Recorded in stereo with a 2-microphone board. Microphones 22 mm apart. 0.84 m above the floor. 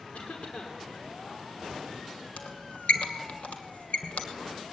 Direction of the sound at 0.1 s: 65° left (ahead or behind).